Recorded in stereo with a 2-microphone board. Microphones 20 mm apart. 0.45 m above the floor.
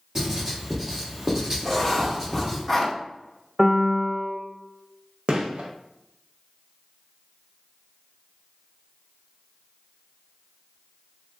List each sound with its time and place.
0.1 s writing: 25° right (ahead or behind), 1.0 m
1.6 s writing: 5° left (ahead or behind), 0.8 m
3.6 s a piano: 20° right (ahead or behind), 0.6 m
5.3 s a gunshot: 60° right (ahead or behind), 0.6 m